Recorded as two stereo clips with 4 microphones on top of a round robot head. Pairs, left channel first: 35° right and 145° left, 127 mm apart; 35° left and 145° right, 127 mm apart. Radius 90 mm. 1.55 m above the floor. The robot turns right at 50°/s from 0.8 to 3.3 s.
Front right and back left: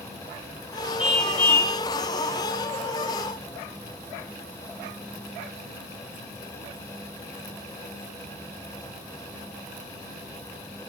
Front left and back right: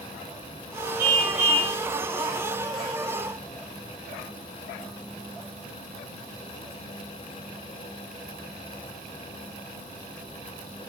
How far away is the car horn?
About 4 m.